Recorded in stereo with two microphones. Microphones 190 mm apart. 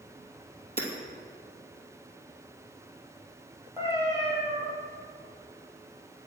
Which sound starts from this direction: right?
Hammering, at 0.8 s.